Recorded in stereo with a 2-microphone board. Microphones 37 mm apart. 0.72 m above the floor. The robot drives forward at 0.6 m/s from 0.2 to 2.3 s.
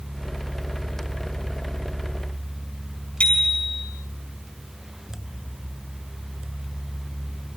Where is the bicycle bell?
35° left (ahead or behind), 5 m.